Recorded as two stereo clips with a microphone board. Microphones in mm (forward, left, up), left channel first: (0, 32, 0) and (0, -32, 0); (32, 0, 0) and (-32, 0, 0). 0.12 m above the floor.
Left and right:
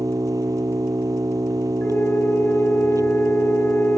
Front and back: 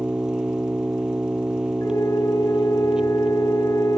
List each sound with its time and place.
0.0 s an engine running: 105° right
1.8 s a flute: 30° left